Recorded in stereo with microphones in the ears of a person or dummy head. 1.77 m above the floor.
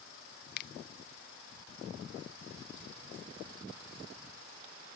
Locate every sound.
0.6 s a finger snap: 55° left (ahead or behind)